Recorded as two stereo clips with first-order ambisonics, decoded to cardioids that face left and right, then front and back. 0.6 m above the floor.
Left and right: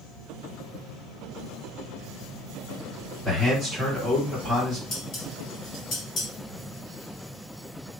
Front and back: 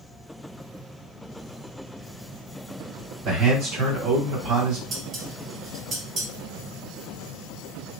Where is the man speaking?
170° right, 1.9 m.